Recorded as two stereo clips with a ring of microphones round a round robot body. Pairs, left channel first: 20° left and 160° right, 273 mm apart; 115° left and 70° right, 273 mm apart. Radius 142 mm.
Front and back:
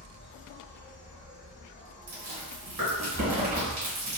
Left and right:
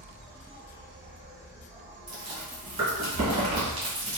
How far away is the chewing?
About 1.2 m.